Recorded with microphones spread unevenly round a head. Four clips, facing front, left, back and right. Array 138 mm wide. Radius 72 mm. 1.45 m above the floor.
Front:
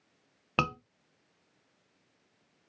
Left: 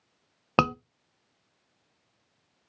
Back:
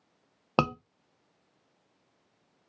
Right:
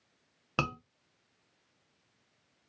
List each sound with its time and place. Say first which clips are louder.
0.6 s a scream: left 10 dB, back 4 dB; 130° left, 0.8 m